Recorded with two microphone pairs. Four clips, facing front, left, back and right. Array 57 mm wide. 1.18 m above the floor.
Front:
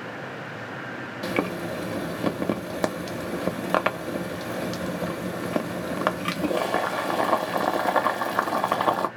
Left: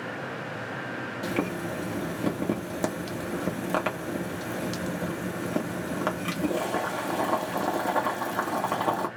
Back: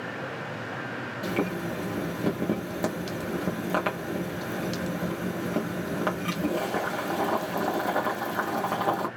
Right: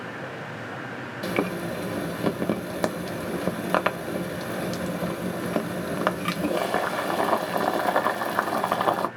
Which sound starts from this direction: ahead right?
Boiling, at 1.2 s.